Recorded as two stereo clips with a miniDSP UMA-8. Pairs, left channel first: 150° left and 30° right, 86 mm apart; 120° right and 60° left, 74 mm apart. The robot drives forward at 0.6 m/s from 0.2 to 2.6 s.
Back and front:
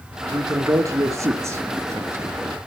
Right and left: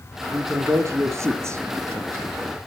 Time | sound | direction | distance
0.3 | a man speaking | 15° left | 3.5 m